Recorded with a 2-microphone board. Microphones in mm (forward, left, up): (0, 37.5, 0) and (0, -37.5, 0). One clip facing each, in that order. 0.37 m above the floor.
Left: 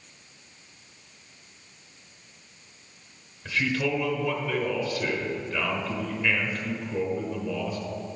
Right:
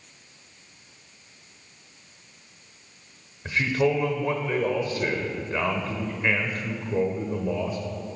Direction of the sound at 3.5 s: 30° right (ahead or behind).